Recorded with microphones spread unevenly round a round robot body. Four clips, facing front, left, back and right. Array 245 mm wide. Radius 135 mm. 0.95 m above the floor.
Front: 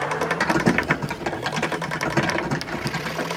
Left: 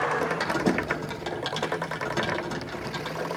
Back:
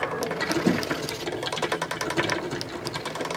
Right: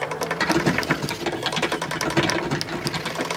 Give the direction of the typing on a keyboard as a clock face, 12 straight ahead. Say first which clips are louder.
Right 4 dB, front 3 dB; 1 o'clock.